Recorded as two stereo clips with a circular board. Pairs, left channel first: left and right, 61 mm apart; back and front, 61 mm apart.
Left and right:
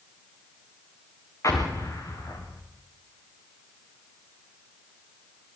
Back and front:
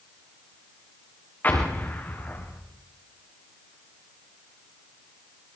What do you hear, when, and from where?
1.4 s an explosion: 120° left, 4.5 m